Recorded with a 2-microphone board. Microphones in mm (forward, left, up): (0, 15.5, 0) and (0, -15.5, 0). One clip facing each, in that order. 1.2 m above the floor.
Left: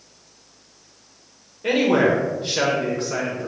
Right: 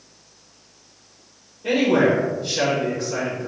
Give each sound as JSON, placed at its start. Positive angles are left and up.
{"t": 1.6, "sound": "a man speaking", "side_deg": 55, "distance_m": 1.1}